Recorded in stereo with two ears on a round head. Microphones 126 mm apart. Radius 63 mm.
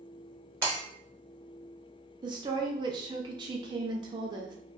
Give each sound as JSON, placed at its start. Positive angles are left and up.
{"t": 0.6, "sound": "breaking glass", "side_deg": -15, "distance_m": 1.3}
{"t": 2.2, "sound": "a woman speaking", "side_deg": -30, "distance_m": 0.5}